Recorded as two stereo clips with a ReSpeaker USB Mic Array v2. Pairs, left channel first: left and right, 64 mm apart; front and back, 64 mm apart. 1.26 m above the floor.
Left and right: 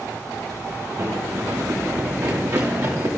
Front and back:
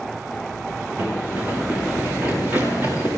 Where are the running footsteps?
120° right, 6 m.